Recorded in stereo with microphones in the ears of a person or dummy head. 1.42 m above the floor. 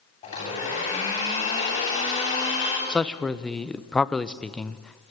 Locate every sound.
0.2 s a blender: 35° left (ahead or behind), 9.5 m
2.9 s a man speaking: 5° left (ahead or behind), 0.8 m